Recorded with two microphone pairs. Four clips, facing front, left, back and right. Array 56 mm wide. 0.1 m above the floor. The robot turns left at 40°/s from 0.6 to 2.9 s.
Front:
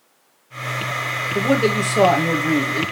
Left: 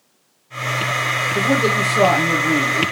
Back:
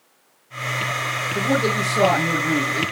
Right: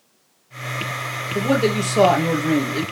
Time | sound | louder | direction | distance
1.4 | a man speaking | even, front 3 dB | 15° right | 2.5 m